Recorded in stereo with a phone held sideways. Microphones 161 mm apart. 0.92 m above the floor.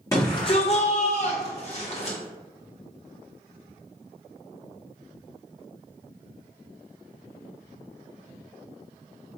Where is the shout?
20° left (ahead or behind), 0.8 m; by 2.2 s 35° left (ahead or behind), 1.6 m.